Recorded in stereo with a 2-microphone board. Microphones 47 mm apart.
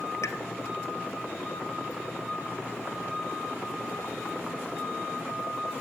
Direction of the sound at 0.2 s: 70° left (ahead or behind).